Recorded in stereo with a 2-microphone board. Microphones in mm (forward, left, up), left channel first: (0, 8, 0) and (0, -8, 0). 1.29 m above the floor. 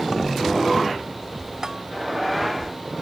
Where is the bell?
30° right (ahead or behind).